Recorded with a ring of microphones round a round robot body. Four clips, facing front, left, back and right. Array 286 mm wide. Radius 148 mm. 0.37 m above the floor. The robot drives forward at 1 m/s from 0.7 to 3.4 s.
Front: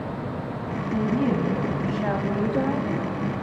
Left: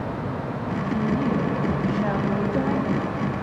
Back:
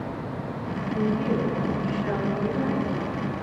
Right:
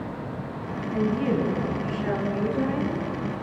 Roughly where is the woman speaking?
Ahead left.